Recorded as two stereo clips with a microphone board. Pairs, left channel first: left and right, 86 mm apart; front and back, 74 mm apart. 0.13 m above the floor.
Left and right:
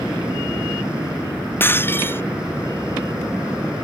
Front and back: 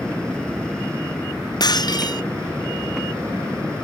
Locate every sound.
1.6 s breaking glass: 25° left